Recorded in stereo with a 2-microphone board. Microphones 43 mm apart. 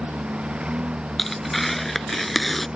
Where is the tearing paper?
5° left (ahead or behind).